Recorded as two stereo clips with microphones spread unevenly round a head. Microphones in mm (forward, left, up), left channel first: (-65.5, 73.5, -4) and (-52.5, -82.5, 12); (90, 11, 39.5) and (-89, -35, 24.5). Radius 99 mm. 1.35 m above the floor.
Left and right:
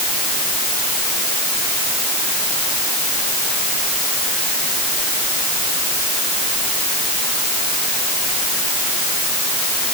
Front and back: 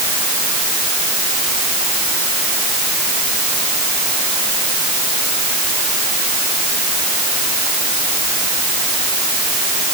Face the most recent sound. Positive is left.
No sound to turn to.